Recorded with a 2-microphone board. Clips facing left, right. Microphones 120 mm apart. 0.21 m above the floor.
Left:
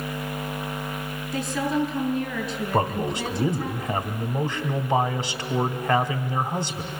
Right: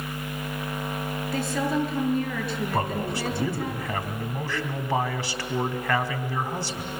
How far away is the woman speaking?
About 4.5 m.